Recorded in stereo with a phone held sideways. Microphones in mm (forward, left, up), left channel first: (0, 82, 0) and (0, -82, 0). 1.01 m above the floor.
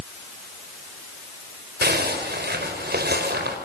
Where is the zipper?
80° right, 5 m.